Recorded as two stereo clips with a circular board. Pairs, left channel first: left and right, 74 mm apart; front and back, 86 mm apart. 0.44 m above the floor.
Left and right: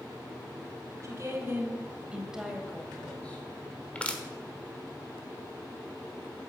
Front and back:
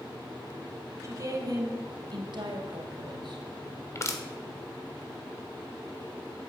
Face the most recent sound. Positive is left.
turn(degrees=25)